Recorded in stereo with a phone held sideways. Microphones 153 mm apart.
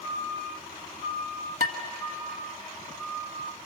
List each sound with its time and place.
1.6 s dishes clattering: 65° left (ahead or behind), 1.6 m